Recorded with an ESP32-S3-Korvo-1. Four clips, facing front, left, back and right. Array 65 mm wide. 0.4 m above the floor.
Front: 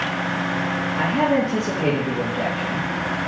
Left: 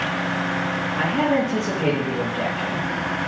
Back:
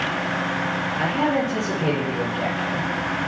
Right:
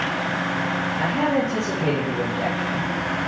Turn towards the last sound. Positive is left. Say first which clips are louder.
# left 2 dB, front 3 dB
turn(degrees=55)